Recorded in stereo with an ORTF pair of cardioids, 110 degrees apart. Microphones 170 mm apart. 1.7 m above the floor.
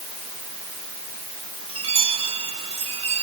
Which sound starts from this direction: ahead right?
A chime, at 1.7 s.